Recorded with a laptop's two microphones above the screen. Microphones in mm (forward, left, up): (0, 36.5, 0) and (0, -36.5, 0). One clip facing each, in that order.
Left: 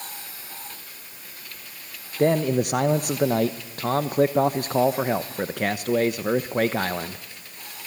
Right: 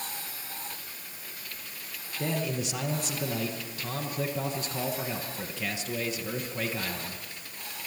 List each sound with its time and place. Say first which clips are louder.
2.2 s a man speaking: left 11 dB; 55° left (ahead or behind), 0.9 m